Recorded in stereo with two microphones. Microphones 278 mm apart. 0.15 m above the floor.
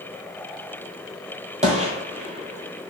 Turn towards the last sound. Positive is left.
turn(degrees=-25)  # may be behind; listen again after turning